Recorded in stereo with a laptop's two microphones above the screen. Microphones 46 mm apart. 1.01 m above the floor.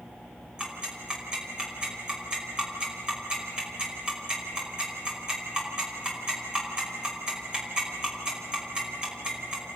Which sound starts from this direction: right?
Ticking, at 0.6 s.